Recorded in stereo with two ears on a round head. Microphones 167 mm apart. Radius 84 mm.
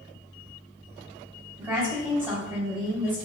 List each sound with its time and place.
1.6 s a woman speaking: 10° right (ahead or behind), 1.1 m